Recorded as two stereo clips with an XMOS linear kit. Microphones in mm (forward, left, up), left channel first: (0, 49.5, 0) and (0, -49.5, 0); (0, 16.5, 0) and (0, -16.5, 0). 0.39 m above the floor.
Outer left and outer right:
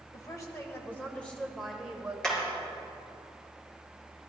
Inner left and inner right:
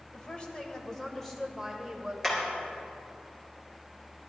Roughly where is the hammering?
Centre.